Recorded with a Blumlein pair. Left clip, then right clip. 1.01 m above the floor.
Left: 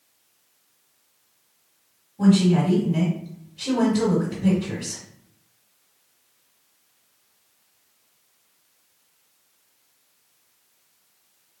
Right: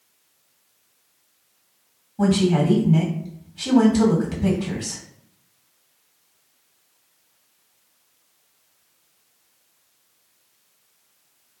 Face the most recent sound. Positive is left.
turn(degrees=-60)